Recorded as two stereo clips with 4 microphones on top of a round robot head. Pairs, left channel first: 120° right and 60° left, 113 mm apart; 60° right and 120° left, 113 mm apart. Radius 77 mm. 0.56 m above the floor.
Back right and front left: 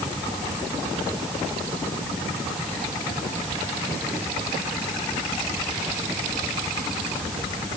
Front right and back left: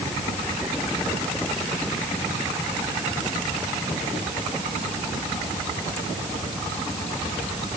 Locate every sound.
Only background noise.